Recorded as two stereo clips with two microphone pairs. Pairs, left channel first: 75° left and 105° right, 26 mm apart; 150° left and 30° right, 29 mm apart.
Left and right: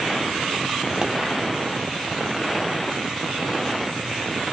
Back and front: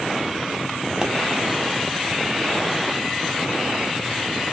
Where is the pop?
70° right, 0.6 m.